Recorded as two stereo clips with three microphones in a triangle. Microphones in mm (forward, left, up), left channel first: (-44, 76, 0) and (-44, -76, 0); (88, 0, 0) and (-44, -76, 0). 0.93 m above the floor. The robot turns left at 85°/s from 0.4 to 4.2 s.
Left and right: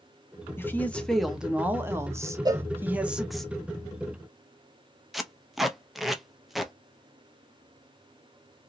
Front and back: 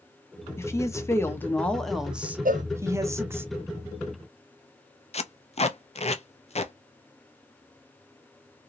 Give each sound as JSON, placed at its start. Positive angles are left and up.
{"t": 0.6, "sound": "a woman speaking", "azimuth_deg": 55, "distance_m": 0.7}
{"t": 2.5, "sound": "a cowbell", "azimuth_deg": -150, "distance_m": 0.5}
{"t": 5.1, "sound": "tape being pulled", "azimuth_deg": 0, "distance_m": 0.5}